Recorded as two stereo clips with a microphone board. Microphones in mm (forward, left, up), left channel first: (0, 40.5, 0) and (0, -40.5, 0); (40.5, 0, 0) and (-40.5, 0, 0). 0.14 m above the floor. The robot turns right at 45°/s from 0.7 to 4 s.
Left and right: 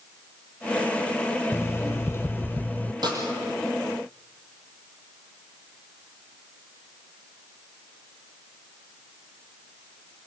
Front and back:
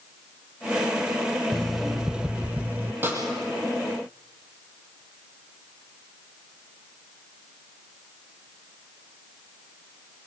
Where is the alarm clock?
80° left, 0.5 m; by 2.9 s 145° left, 0.5 m.